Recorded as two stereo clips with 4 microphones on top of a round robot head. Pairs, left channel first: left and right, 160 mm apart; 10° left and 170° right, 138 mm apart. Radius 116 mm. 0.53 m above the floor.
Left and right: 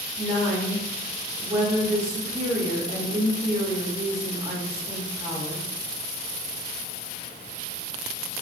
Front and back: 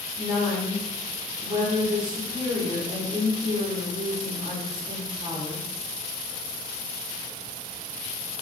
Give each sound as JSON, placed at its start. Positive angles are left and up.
{"t": 0.2, "sound": "a woman speaking", "azimuth_deg": -150, "distance_m": 0.7}